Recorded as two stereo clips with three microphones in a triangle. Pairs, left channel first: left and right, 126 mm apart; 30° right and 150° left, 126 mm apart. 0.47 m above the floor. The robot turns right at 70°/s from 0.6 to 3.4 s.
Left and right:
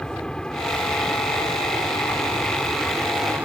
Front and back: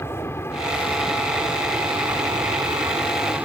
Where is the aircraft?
15° left; by 3.5 s 150° right.